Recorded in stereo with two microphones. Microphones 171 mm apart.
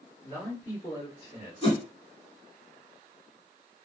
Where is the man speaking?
20° left (ahead or behind), 2 m; by 1.5 s 40° left (ahead or behind), 1.5 m.